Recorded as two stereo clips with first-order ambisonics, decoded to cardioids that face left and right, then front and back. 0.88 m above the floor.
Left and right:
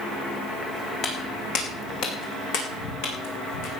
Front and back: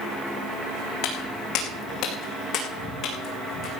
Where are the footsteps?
35° left, 3.5 m; by 3.7 s 65° left, 4.5 m.